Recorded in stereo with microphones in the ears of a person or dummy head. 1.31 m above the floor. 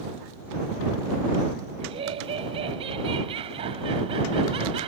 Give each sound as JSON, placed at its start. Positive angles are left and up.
{"t": 1.8, "sound": "laughter", "side_deg": -30}